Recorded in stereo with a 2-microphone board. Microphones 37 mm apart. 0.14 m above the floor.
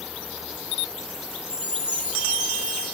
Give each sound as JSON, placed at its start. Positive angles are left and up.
{"t": 1.5, "sound": "a chime", "side_deg": -25, "distance_m": 6.5}